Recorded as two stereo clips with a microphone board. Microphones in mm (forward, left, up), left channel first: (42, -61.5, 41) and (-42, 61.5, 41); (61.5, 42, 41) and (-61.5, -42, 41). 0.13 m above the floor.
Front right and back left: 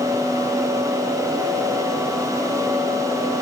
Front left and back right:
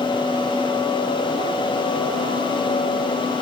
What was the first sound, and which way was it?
Only background noise.